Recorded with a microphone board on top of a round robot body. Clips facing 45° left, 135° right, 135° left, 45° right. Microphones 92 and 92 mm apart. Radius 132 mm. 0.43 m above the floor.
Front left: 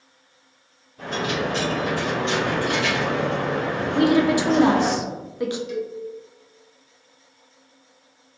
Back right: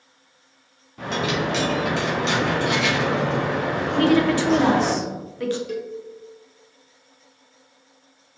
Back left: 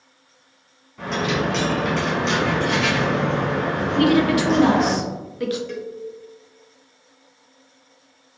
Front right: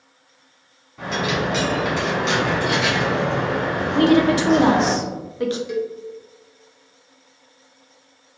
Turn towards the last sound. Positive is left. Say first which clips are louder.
# front left 1 dB, front right 6 dB
turn(degrees=-120)